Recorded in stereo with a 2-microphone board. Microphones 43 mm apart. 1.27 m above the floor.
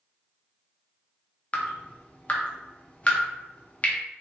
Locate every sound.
1.5 s dripping: 35° left (ahead or behind), 0.6 m